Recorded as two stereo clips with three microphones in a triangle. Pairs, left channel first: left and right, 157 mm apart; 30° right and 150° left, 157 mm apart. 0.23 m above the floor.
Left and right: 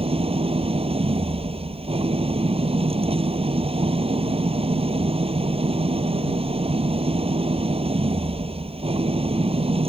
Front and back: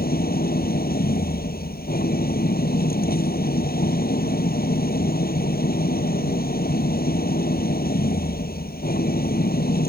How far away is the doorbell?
No doorbell in this recording.